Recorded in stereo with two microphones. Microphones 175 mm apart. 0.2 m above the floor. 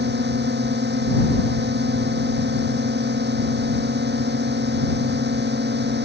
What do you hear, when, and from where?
0.0 s a drone: 80° right